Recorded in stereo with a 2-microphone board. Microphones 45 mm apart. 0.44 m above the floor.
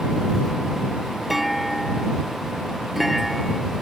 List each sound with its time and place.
1.3 s a clunk: centre (ahead or behind)